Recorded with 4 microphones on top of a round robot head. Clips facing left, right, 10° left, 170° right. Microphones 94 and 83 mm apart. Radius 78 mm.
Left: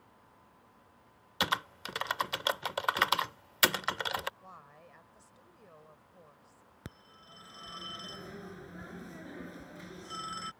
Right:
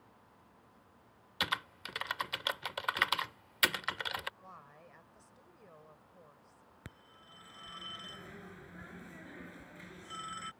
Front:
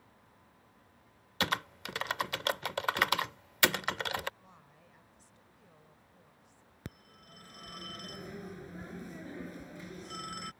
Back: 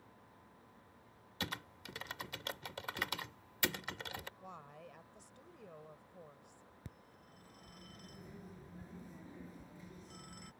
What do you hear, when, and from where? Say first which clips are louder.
1.4 s typing on a keyboard: left 5 dB, front 11 dB; 30° left
4.4 s a woman speaking: left 1 dB, back 7 dB; 175° left
6.8 s a phone ringing: left 5 dB, front 10 dB; 25° left